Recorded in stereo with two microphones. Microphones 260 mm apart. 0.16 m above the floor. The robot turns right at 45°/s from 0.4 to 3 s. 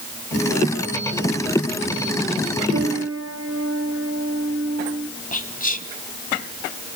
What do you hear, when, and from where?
2.7 s a piano: 55° right (ahead or behind), 3 m; by 5.1 s 60° right (ahead or behind), 3 m
5.3 s whispering: 30° left (ahead or behind), 1.1 m